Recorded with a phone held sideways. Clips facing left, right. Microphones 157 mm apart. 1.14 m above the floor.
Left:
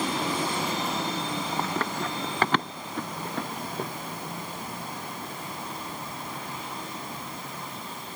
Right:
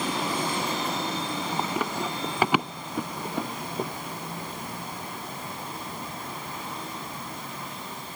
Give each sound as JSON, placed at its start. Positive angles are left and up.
{"t": 1.6, "sound": "running footsteps", "side_deg": -10}